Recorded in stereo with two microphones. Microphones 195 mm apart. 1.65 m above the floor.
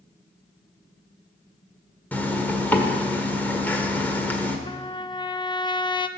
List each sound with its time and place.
2.1 s a zipper: 10° left (ahead or behind), 1.5 m
4.7 s a trumpet: 25° left (ahead or behind), 0.6 m